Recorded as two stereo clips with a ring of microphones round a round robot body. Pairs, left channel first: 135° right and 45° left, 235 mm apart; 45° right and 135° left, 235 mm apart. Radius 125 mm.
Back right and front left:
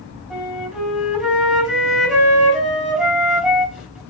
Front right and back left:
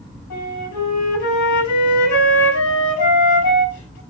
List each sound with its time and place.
0.3 s a flute: 45° right, 5 m